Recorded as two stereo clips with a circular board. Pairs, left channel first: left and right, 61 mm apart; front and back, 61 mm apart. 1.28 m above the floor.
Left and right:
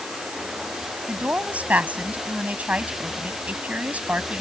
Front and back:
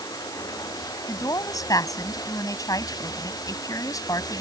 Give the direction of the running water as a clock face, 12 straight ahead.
12 o'clock.